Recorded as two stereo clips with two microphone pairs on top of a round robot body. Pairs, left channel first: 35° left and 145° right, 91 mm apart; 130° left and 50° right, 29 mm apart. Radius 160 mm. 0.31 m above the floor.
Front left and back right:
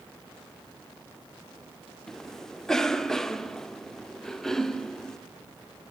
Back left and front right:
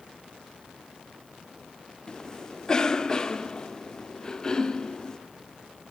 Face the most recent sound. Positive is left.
turn(degrees=90)